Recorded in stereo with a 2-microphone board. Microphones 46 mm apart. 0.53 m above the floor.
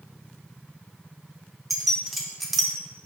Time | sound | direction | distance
1.7 | keys jangling | centre (ahead or behind) | 0.9 m